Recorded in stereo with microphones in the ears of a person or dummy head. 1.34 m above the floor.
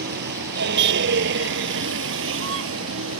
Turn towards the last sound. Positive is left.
turn(degrees=-80)